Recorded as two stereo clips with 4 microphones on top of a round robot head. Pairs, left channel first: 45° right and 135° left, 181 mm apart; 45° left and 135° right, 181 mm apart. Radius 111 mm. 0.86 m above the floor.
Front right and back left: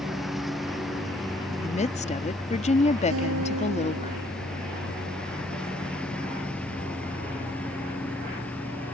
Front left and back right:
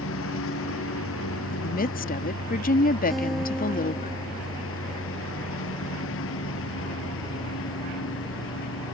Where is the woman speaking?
5° left.